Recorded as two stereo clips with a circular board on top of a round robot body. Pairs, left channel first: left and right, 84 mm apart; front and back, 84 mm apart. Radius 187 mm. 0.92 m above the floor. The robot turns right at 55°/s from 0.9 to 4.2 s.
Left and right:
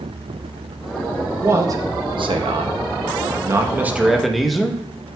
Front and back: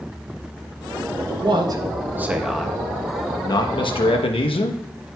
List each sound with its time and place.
1.4 s a man speaking: 155° right, 1.1 m; by 4.8 s straight ahead, 1.1 m